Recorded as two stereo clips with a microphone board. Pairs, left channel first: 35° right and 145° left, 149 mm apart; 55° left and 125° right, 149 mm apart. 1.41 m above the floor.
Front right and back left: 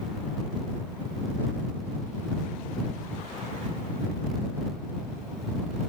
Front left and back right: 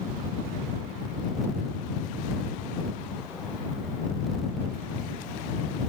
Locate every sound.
Only background noise.